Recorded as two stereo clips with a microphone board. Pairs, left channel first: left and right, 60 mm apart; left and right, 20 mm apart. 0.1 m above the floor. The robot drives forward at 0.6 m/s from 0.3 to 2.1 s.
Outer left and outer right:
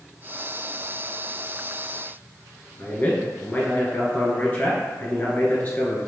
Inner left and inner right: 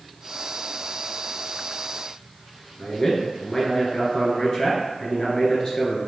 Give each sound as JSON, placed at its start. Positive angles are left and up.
{"t": 2.8, "sound": "a man speaking", "side_deg": 35, "distance_m": 1.4}